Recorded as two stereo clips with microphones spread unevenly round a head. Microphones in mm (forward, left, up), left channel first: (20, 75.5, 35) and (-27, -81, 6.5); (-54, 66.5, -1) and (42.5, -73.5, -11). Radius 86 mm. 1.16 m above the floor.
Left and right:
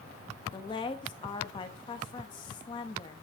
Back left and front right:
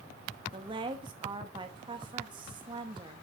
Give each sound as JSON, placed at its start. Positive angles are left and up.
{"t": 0.5, "sound": "a woman speaking", "azimuth_deg": 10, "distance_m": 1.2}